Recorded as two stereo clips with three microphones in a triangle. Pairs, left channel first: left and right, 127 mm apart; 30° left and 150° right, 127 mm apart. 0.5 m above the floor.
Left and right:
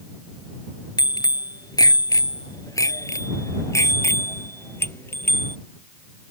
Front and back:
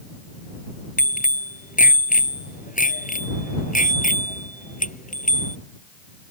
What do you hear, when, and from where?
1.0 s a bicycle bell: 30° left; by 5.5 s 15° left